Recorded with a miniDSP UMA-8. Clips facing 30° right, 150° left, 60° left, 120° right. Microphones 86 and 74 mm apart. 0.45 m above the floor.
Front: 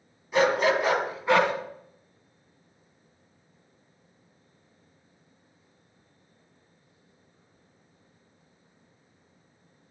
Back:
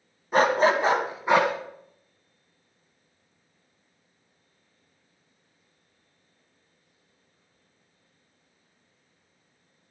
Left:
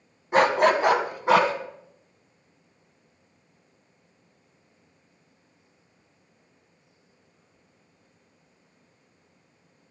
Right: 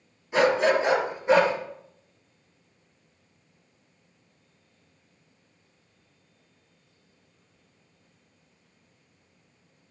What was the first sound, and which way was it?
A dog barking, 105° left.